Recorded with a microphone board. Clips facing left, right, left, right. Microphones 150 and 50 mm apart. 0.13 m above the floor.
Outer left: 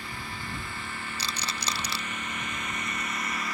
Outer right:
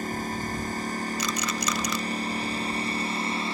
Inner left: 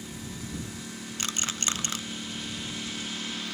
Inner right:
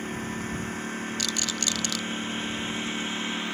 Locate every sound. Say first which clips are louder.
0.0 s a lawn mower: outer right 9 dB, inner right 7 dB; 45° right (ahead or behind); by 3.5 s 30° right (ahead or behind)
1.2 s a rattle: outer right 6 dB, inner left 2 dB; 30° left (ahead or behind)